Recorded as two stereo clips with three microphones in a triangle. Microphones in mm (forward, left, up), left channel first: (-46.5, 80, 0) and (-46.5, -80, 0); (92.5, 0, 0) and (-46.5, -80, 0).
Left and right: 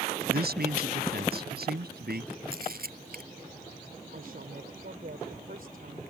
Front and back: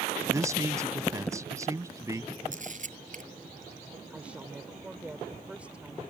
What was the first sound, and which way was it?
A man speaking, 80° right.